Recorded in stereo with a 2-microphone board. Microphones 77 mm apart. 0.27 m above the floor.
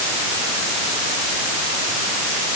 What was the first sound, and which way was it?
Only background noise.